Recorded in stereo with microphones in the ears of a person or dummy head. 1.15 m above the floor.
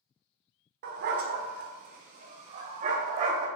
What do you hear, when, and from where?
0.8 s a dog barking: 60° right (ahead or behind), 1.4 m; by 3.5 s 40° right (ahead or behind), 2.5 m